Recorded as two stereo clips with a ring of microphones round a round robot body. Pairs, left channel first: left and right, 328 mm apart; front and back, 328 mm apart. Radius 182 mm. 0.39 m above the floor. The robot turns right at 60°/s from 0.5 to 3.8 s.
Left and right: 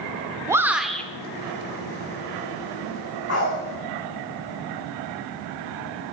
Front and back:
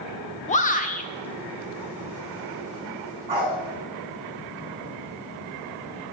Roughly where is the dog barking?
Behind left.